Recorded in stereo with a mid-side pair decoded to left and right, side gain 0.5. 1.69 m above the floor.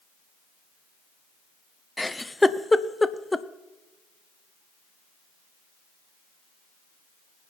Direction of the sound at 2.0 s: 10° left.